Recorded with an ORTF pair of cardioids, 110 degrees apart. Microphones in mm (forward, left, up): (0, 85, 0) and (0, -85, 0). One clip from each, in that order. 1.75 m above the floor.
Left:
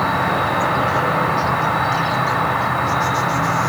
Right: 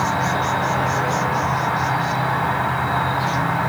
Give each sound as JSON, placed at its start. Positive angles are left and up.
{"t": 0.0, "sound": "an insect", "azimuth_deg": 30, "distance_m": 1.5}